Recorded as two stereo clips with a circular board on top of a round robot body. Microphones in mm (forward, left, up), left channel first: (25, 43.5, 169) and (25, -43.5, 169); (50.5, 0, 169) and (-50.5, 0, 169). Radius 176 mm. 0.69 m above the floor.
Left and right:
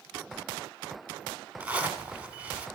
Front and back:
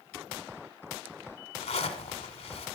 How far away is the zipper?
About 1.9 m.